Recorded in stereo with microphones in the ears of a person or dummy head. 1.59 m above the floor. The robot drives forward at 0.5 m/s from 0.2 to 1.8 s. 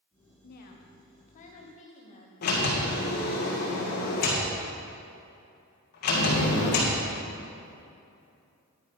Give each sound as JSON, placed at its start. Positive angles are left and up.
{"t": 0.4, "sound": "a woman speaking", "side_deg": 55, "distance_m": 1.2}
{"t": 2.4, "sound": "a sliding door", "side_deg": 55, "distance_m": 1.7}